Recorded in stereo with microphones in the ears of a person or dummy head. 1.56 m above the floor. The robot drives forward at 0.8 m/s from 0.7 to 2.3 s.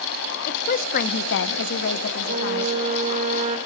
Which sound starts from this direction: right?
A flute, at 2.2 s.